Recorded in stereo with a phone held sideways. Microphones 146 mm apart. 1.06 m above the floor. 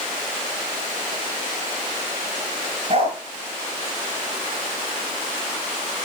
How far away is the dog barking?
About 4.5 m.